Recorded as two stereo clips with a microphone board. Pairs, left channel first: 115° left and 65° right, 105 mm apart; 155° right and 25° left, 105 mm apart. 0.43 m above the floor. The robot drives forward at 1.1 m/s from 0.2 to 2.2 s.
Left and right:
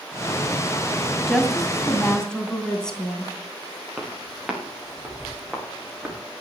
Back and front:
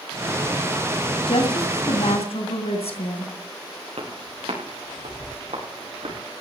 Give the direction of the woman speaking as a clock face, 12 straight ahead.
5 o'clock.